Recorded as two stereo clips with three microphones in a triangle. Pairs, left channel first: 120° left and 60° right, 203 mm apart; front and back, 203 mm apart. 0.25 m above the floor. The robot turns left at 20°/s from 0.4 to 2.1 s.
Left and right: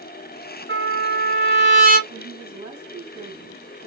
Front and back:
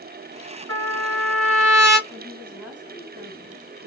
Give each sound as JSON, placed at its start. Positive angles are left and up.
{"t": 0.7, "sound": "a trumpet", "azimuth_deg": -80, "distance_m": 1.6}
{"t": 2.1, "sound": "a woman speaking", "azimuth_deg": -115, "distance_m": 2.0}